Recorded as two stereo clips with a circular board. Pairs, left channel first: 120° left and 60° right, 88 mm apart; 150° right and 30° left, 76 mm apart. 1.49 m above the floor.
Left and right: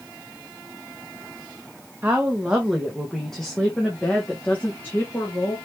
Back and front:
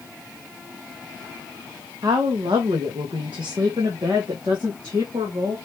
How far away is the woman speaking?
About 1.1 m.